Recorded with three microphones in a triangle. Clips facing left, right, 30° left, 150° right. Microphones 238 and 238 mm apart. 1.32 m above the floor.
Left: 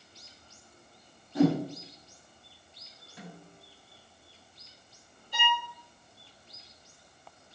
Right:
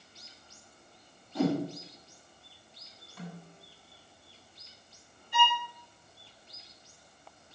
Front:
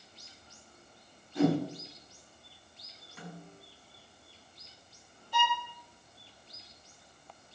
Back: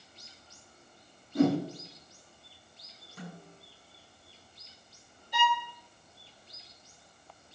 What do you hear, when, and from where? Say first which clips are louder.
1.4 s a whoosh: left 4 dB, back 2 dB; 165° left, 4.5 m
3.2 s a snare drum: right 2 dB, back 1 dB; 160° left, 7.5 m
5.3 s a violin: right 3 dB, back 2 dB; 135° left, 5 m